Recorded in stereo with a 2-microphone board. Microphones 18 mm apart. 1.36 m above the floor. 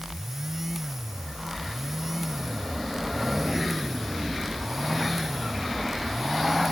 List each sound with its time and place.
Only background noise.